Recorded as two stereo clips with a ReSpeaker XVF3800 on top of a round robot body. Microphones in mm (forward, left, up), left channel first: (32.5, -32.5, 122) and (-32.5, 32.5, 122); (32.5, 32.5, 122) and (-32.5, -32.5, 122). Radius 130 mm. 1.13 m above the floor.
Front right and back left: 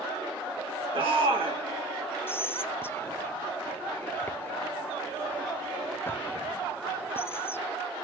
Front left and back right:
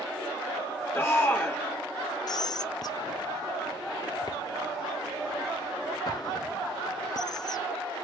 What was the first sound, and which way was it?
A shout, 110° left.